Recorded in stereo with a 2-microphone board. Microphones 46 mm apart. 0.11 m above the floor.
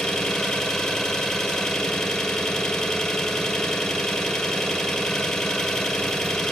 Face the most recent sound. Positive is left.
turn(degrees=15)  # may be behind; listen again after turning